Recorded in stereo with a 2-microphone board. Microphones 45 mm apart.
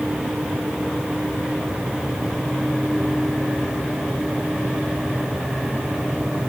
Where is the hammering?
No hammering in this recording.